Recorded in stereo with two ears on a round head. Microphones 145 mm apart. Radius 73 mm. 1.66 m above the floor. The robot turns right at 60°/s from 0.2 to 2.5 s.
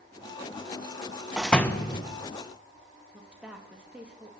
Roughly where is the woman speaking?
Centre.